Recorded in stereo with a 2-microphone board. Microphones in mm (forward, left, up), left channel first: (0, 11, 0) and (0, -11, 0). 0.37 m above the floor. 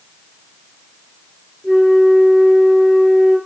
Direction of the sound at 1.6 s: 20° right (ahead or behind).